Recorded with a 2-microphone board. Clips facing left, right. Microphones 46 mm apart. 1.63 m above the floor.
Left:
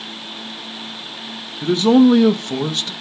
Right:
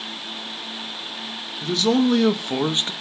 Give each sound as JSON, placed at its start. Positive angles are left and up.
{"t": 1.6, "sound": "a man speaking", "side_deg": 30, "distance_m": 0.8}